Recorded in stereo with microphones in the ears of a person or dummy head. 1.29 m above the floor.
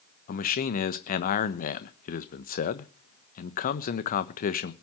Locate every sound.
0.3 s a man speaking: 45° left (ahead or behind), 1.2 m